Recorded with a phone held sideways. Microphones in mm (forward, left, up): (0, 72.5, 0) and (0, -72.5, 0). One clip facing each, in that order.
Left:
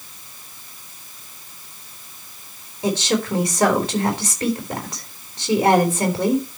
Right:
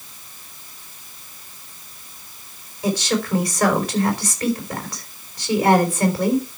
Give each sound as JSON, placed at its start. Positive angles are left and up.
{"t": 2.8, "sound": "a woman speaking", "side_deg": 25, "distance_m": 4.0}